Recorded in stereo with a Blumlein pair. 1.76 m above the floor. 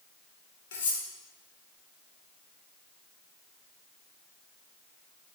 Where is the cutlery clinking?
60° left, 3.5 m.